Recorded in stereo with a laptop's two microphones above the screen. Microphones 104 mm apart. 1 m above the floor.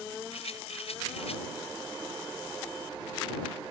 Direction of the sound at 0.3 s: 75° left (ahead or behind).